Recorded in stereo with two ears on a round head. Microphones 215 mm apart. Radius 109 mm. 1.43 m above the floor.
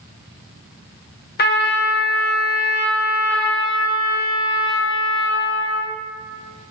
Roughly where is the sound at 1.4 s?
Left.